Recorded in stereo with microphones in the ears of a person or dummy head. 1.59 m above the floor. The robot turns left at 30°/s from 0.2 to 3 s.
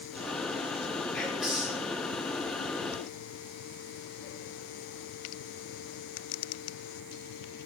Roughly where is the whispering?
Centre.